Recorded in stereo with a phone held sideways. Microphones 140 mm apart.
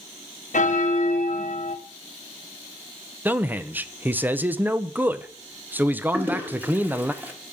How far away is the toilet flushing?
About 1.8 m.